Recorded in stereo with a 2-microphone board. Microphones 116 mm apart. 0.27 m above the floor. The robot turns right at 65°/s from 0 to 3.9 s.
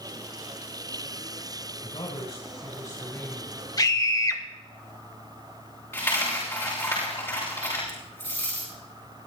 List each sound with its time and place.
1.8 s a man speaking: 75° left, 2.5 m; by 3.6 s 170° right, 2.5 m
3.8 s a scream: 35° left (ahead or behind), 1.1 m; by 4.4 s 30° left (ahead or behind), 1.1 m
5.9 s a dropped coin: 25° left (ahead or behind), 7 m